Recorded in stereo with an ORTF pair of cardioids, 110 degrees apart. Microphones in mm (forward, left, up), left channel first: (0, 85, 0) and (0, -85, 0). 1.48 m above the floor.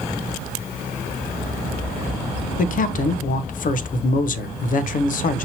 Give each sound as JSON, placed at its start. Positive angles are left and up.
{"t": 2.6, "sound": "a man speaking", "azimuth_deg": 55, "distance_m": 0.6}